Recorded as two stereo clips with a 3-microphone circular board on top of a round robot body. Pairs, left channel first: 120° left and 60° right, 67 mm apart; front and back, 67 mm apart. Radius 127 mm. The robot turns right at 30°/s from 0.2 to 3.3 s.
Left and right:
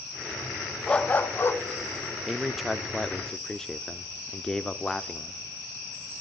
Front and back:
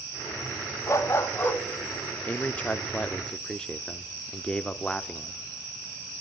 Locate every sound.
0.9 s a dog barking: 40° left, 0.9 m; by 1.6 s 65° left, 0.9 m
2.3 s a man speaking: 20° left, 0.8 m; by 5.4 s 50° left, 0.8 m